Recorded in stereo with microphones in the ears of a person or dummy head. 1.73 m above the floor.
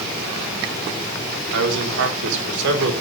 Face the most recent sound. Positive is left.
turn(degrees=-75)  # may be behind; listen again after turning